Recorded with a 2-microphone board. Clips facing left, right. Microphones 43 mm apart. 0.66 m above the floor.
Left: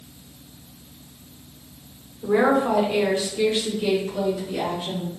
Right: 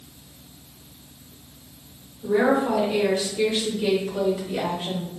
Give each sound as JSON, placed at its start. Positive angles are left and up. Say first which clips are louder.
{"t": 2.2, "sound": "a woman speaking", "louder": "left 1 dB", "side_deg": 50, "distance_m": 1.5}